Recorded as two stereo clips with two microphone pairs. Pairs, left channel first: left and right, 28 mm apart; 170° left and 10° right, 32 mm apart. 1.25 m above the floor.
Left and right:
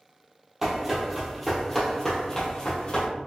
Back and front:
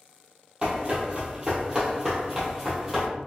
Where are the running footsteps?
30° right, 1.4 m; by 3.1 s 80° left, 1.6 m.